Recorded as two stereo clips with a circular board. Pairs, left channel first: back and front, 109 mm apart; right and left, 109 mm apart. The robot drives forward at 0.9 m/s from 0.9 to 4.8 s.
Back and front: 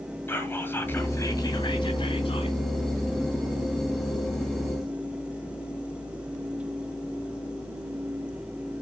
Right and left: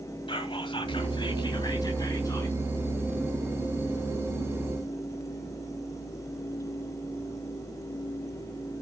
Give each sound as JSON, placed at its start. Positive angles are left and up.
{"t": 0.3, "sound": "whispering", "azimuth_deg": -115, "distance_m": 1.6}